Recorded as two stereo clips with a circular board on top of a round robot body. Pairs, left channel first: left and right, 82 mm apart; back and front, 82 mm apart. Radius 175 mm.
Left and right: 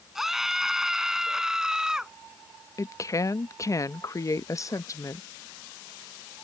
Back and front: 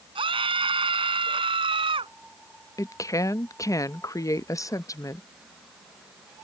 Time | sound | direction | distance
0.1 | a scream | 5° right | ?
2.8 | a woman speaking | 135° left | ?